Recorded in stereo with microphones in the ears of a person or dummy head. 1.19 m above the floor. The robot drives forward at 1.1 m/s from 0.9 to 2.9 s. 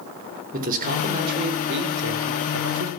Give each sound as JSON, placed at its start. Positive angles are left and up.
{"t": 0.5, "sound": "a man speaking", "side_deg": -45, "distance_m": 4.0}